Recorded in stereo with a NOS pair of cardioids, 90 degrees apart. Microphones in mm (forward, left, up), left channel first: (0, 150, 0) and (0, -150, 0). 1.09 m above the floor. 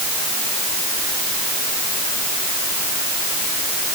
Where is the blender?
No blender in this recording.